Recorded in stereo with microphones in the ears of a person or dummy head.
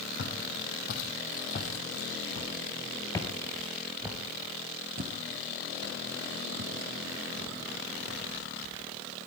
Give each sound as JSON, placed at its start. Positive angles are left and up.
{"t": 0.2, "sound": "footsteps", "side_deg": 55, "distance_m": 4.0}